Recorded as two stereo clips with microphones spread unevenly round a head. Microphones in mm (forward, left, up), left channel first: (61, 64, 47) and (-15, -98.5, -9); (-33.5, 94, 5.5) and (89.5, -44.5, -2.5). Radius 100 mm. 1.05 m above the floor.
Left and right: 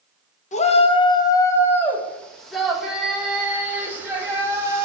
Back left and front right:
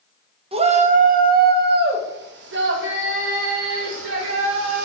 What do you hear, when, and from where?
0.5 s a shout: 10° left, 1.7 m; by 4.8 s 40° right, 5 m